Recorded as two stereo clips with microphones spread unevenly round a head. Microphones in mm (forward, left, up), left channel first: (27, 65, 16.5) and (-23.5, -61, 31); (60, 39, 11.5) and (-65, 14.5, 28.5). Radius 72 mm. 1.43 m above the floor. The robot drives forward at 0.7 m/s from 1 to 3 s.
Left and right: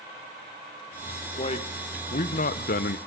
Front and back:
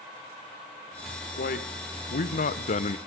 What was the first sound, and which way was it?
A man speaking, 20° left.